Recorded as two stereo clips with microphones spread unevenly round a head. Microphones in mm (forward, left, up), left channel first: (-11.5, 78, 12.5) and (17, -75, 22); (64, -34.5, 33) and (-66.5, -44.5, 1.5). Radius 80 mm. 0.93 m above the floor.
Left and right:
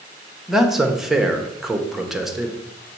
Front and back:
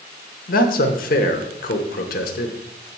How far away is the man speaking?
About 0.9 m.